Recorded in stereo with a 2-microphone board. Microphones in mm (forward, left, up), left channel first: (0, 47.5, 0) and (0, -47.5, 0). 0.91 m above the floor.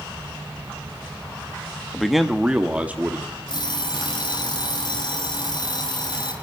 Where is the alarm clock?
55° left (ahead or behind), 6 m.